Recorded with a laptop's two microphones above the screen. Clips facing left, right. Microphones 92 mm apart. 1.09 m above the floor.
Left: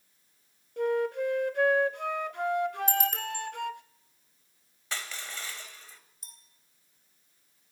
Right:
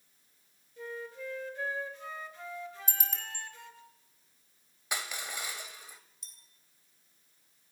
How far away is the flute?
About 0.6 m.